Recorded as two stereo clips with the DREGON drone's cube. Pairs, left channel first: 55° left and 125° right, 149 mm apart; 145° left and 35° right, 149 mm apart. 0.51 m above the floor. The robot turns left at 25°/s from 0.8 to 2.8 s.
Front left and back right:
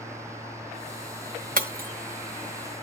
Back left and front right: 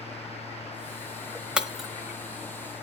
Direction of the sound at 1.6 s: 115° right.